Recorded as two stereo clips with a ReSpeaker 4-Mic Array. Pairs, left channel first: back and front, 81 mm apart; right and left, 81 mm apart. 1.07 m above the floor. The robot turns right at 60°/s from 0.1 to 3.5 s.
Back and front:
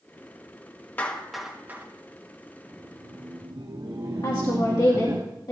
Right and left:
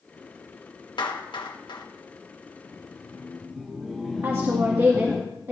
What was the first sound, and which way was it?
A clap, 110° right.